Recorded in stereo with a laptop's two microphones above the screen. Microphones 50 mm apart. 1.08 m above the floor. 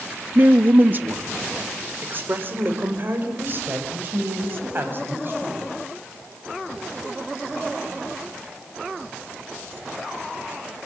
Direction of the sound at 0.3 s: 35° right (ahead or behind).